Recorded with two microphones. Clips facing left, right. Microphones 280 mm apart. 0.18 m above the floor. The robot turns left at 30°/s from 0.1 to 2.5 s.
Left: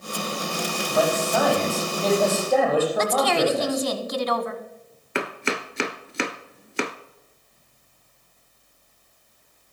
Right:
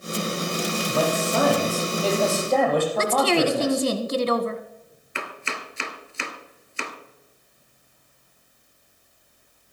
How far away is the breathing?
I don't hear breathing.